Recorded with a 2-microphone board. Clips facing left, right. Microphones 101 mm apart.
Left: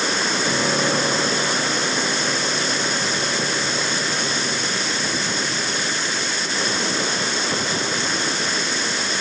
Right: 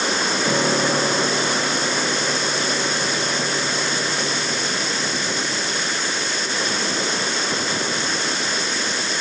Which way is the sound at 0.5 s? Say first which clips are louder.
Right 2 dB; 55° right (ahead or behind).